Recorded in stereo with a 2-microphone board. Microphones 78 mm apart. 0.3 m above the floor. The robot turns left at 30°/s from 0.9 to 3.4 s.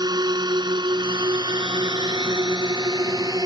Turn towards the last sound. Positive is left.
turn(degrees=-50)  # may be behind; listen again after turning